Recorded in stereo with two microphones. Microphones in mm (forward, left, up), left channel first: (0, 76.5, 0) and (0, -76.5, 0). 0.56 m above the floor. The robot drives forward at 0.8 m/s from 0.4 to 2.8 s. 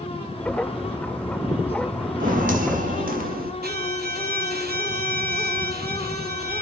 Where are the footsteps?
60° right (ahead or behind), 1.5 m; by 3.5 s 65° right (ahead or behind), 1.4 m.